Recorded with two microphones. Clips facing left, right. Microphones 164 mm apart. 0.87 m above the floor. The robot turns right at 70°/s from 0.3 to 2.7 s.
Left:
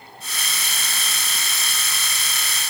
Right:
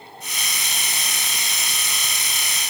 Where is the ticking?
I don't hear ticking.